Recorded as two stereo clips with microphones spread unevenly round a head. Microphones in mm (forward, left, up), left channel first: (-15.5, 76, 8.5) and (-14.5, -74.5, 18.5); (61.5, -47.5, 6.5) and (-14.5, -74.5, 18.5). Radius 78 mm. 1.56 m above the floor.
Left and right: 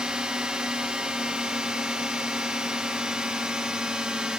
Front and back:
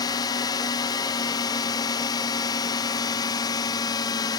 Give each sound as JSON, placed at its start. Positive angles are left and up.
{"t": 0.0, "sound": "a drone", "azimuth_deg": -5}